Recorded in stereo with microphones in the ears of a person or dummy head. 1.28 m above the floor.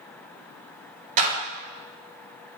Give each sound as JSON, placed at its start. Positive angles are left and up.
{"t": 1.2, "sound": "a clap", "side_deg": -35, "distance_m": 3.5}